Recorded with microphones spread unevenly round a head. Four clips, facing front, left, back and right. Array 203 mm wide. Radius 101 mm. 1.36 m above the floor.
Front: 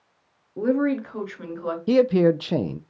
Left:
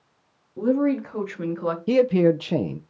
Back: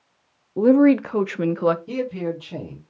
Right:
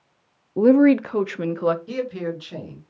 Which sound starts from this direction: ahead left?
A man speaking, at 1.9 s.